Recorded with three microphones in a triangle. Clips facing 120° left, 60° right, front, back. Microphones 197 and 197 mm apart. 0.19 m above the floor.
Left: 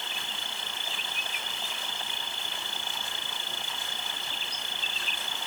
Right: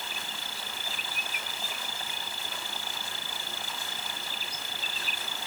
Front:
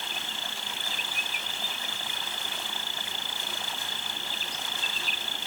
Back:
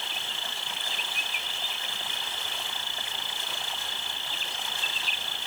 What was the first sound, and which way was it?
An insect, 20° left.